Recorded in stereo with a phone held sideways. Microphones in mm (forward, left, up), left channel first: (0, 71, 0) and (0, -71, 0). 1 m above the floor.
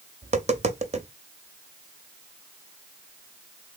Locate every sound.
0.2 s tapping: 50° right (ahead or behind), 0.6 m